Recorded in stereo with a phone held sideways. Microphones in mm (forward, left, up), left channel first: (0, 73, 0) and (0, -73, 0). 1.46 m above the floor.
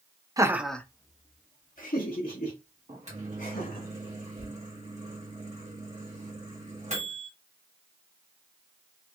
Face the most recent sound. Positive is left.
turn(degrees=-55)  # may be behind; listen again after turning